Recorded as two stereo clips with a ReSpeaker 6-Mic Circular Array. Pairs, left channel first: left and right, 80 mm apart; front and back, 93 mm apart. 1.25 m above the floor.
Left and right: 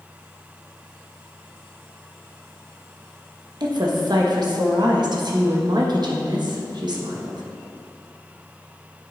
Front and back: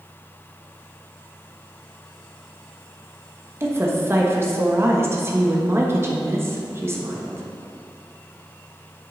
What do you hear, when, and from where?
3.6 s a woman speaking: 115° right, 1.1 m